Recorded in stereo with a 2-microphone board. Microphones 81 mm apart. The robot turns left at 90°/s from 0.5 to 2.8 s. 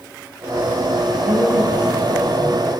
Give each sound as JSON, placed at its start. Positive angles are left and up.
{"t": 1.2, "sound": "a woman speaking", "azimuth_deg": -110, "distance_m": 8.0}